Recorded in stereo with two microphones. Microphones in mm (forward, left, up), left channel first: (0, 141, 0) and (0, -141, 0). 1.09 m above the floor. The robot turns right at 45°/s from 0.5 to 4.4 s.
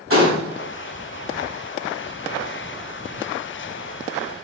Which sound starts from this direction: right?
A gunshot, at 0.1 s.